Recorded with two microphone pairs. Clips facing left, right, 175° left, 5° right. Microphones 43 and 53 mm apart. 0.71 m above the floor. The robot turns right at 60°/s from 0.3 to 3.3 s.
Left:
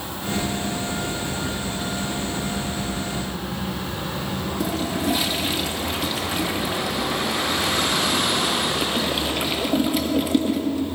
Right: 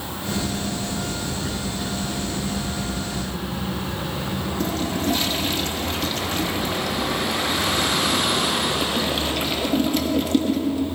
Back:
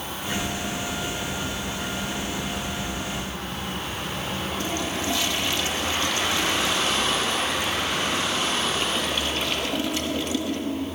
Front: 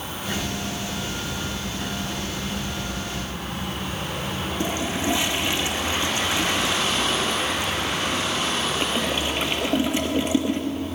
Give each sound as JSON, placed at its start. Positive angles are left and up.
{"t": 4.6, "sound": "a toilet flushing", "azimuth_deg": 20, "distance_m": 0.6}